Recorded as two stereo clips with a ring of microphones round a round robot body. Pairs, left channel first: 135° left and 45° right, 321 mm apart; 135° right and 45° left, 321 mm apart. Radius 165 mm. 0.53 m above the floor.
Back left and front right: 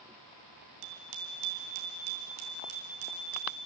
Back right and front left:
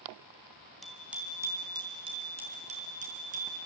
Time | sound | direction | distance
0.8 | a bicycle bell | 45° right | 3 m